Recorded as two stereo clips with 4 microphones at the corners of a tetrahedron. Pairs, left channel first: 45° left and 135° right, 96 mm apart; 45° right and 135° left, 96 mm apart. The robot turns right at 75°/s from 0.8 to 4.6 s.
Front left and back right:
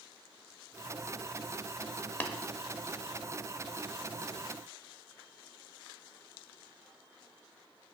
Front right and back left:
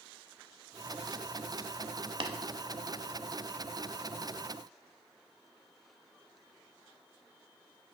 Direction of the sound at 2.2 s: 115° left.